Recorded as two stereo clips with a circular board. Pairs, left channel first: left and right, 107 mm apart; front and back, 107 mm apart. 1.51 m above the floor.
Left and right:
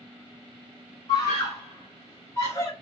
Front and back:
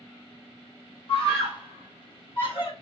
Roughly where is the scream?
Ahead left.